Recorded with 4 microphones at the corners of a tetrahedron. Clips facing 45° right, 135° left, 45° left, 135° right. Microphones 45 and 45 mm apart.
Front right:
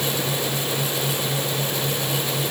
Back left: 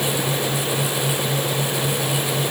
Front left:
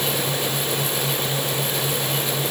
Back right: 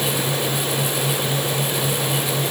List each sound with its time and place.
Only background noise.